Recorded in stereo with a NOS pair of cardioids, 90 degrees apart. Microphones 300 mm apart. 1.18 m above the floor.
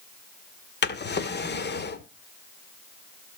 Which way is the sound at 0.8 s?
35° left.